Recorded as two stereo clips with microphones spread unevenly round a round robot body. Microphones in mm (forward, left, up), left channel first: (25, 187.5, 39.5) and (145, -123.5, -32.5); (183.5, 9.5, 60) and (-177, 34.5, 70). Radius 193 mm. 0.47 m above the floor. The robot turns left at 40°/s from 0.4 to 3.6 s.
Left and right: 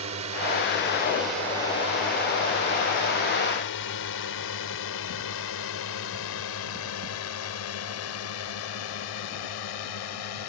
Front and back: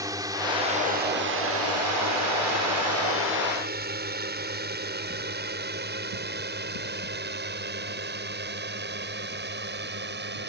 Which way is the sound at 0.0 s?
110° right.